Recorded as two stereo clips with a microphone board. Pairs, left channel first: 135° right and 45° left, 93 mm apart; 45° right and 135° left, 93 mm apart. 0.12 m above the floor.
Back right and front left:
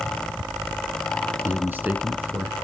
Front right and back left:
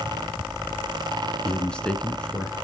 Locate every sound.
1.4 s a man speaking: 20° left, 1.1 m